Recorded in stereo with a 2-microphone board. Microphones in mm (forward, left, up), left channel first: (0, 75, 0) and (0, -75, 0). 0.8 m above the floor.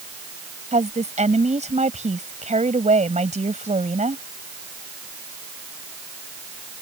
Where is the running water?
I don't hear running water.